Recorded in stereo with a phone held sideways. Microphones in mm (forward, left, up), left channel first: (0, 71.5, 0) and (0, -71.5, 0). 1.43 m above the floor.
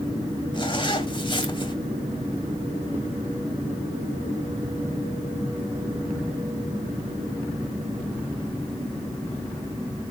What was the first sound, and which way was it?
A zipper, 35° left (ahead or behind).